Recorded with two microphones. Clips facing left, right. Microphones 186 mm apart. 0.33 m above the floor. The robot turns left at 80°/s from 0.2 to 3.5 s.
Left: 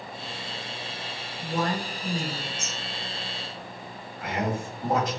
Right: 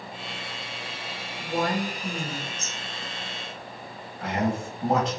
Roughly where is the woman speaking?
Right.